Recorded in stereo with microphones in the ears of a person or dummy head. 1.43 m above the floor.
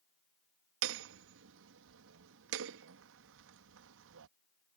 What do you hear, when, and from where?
0.8 s hammering: 70° right (ahead or behind)